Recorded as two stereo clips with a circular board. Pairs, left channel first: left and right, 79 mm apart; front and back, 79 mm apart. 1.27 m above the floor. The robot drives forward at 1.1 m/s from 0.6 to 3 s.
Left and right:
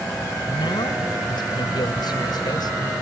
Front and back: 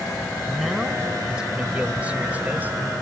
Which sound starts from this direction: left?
A man speaking, at 0.5 s.